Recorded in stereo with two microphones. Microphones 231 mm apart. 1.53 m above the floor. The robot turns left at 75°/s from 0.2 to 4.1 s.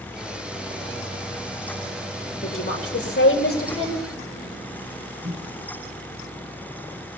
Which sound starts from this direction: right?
A microwave, at 5.2 s.